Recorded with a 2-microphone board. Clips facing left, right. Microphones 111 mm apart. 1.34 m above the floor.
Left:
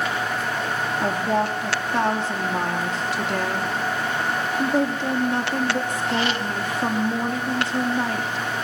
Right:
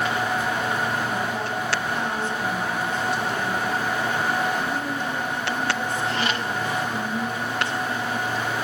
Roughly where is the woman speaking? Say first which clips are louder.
Left 5 dB; left.